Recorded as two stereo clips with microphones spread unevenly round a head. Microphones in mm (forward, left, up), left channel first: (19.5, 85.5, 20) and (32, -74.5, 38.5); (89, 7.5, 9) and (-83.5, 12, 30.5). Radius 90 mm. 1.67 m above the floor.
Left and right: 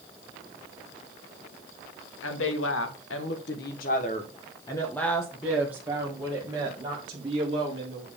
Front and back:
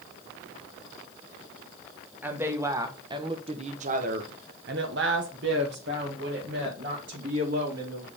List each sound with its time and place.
2.2 s a woman speaking: 100° left, 1.4 m; by 8.1 s 140° right, 2 m